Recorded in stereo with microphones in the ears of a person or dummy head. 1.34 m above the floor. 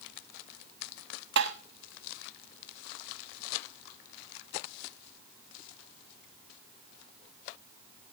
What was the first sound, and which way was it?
Tapping, 65° right (ahead or behind).